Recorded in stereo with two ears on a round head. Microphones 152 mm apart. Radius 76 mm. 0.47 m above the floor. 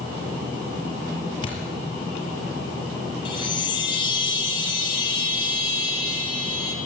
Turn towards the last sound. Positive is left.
turn(degrees=30)  # may be behind; listen again after turning